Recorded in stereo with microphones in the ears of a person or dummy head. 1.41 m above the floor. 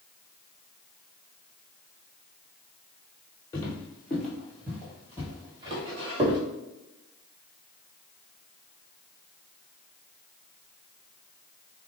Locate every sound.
3.5 s footsteps: 20° left (ahead or behind), 1.7 m; by 6.4 s 40° right (ahead or behind), 1.8 m